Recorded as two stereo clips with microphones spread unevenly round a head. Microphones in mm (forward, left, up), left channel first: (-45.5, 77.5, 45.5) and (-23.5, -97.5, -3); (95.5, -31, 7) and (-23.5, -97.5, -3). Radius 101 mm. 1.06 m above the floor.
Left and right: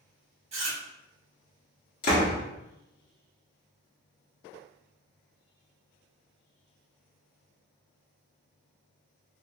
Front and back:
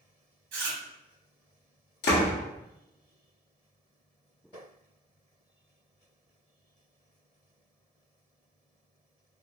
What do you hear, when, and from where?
0.5 s chewing: 140° right, 1.4 m
2.0 s a door slam: 50° left, 1.2 m